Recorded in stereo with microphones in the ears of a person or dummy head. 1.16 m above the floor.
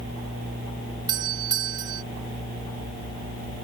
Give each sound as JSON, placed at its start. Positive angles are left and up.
{"t": 1.1, "sound": "a doorbell", "side_deg": -25}